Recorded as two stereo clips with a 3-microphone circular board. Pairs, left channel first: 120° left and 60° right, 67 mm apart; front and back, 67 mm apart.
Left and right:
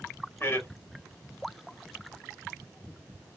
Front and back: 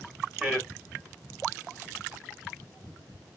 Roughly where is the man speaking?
Left.